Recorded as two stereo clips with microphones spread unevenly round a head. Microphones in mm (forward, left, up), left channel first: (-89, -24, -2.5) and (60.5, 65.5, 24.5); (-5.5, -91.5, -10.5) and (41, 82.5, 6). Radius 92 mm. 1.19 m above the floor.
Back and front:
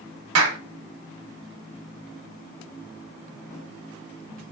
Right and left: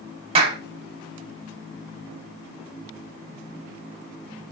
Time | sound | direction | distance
0.3 | a clap | 15° left | 1.1 m